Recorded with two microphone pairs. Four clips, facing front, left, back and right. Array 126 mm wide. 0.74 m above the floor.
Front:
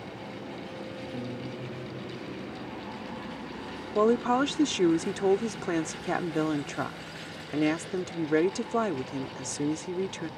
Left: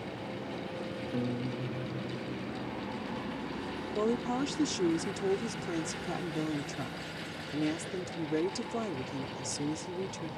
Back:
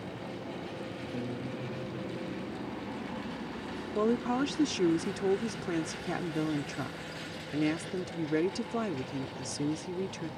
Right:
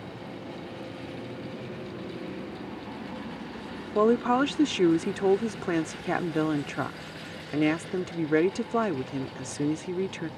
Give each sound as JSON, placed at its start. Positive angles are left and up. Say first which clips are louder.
{"t": 1.1, "sound": "a guitar", "louder": "left 4 dB, back 1 dB", "azimuth_deg": 100}
{"t": 4.0, "sound": "a woman speaking", "louder": "right 9 dB, front 5 dB", "azimuth_deg": -45}